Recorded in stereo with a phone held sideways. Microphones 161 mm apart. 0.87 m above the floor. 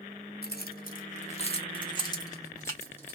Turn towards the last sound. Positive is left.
turn(degrees=15)  # may be behind; listen again after turning